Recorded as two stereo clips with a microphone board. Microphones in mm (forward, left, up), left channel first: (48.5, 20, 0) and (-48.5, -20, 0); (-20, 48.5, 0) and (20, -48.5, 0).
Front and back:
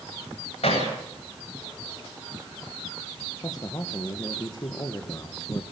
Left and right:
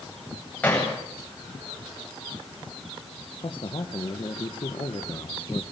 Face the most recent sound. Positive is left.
turn(degrees=75)